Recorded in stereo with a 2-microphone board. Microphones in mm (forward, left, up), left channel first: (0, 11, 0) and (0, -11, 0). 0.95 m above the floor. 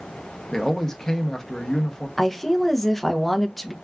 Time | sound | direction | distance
0.5 | a man speaking | 20° left (ahead or behind) | 0.8 m
2.2 | a woman speaking | 10° left (ahead or behind) | 0.6 m